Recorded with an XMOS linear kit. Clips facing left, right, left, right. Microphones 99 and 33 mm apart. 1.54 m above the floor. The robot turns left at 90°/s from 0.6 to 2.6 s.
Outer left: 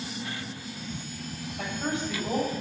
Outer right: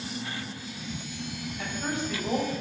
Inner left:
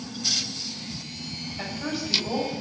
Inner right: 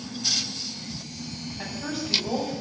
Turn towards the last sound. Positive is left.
turn(degrees=-40)